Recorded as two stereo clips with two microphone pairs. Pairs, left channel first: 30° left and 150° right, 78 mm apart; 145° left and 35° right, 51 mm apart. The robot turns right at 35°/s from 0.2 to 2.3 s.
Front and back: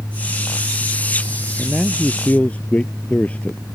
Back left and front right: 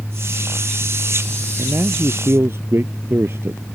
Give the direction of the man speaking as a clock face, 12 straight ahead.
2 o'clock.